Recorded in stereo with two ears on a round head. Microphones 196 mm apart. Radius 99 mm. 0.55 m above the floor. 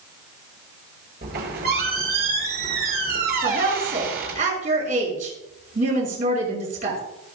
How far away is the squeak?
About 7 m.